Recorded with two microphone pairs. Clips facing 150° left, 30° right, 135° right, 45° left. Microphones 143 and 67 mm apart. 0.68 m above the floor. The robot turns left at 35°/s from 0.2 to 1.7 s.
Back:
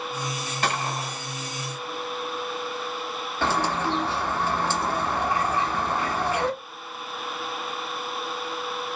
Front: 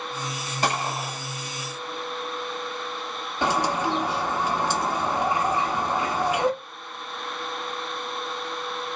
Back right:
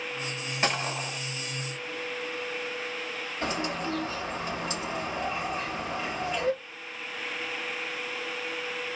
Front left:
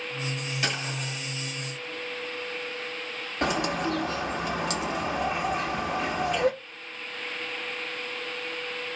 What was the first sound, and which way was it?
A gunshot, 75° right.